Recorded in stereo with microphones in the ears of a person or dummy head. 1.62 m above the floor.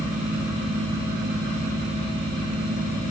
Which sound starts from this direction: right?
A fan, at 0.0 s.